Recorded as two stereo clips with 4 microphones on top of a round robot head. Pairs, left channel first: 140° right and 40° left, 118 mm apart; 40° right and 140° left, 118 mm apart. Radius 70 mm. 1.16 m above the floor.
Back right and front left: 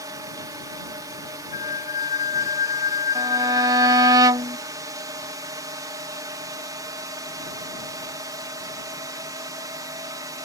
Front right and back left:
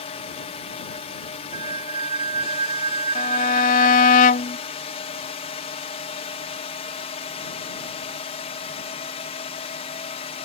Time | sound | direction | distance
0.0 | a drone | 15° right | ?
1.5 | a flute | 170° right | ?
3.1 | a violin | 20° right | ?